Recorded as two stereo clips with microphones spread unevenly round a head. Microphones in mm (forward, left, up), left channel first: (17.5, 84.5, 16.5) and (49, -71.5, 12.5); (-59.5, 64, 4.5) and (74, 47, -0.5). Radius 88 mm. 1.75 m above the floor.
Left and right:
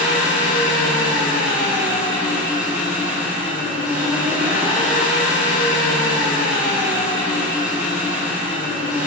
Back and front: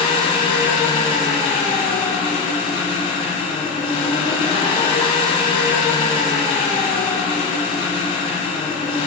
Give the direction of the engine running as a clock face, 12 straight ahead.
5 o'clock.